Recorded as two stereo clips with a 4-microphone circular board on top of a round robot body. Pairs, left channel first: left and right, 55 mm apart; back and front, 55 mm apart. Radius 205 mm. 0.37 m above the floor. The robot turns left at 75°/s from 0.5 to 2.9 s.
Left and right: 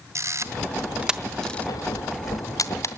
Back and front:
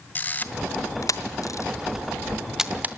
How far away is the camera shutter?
About 1.2 m.